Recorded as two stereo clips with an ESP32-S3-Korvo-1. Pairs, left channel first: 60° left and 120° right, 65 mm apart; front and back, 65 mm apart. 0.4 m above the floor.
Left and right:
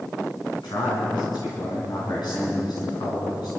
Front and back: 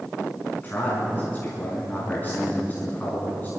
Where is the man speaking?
65° left, 3.5 m.